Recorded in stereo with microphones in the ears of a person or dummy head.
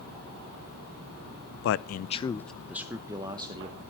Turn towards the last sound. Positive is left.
turn(degrees=-25)  # may be behind; listen again after turning